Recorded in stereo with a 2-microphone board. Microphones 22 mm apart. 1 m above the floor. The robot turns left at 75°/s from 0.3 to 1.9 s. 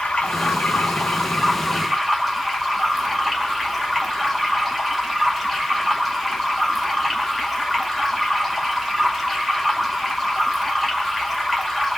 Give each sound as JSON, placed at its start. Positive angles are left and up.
{"t": 0.0, "sound": "running water", "azimuth_deg": 125, "distance_m": 1.7}